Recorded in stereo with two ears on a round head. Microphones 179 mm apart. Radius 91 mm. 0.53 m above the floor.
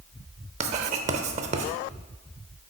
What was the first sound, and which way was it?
Writing, 35° right (ahead or behind).